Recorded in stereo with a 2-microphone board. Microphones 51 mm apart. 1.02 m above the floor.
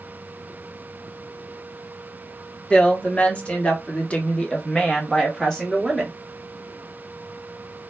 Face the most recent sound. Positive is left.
turn(degrees=0)  # may be behind; listen again after turning